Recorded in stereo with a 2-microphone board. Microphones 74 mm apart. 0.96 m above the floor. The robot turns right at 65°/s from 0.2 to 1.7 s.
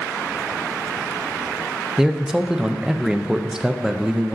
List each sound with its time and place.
2.0 s a man speaking: 10° right (ahead or behind), 0.5 m